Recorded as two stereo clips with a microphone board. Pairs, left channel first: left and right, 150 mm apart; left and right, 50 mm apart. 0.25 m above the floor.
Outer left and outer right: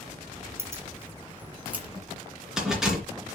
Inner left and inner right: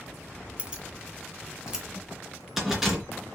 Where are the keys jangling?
20° right (ahead or behind), 1.6 m; by 3.0 s 5° right (ahead or behind), 3 m.